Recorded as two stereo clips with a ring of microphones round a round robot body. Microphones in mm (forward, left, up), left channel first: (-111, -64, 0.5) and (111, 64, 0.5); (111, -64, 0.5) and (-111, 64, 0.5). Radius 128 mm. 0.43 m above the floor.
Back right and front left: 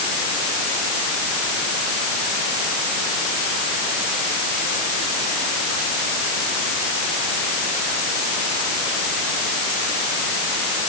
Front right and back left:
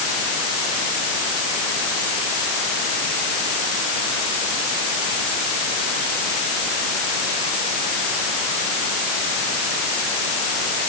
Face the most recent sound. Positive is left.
No sound to turn to.